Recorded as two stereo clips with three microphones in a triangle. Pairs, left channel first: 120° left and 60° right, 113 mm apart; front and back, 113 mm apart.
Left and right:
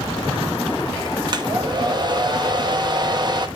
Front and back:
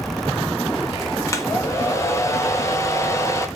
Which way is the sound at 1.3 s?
50° right.